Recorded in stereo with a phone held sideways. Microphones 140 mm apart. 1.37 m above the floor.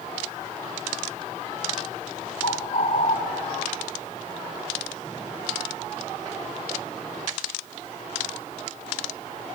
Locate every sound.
2.4 s a bird: 55° left (ahead or behind), 2.5 m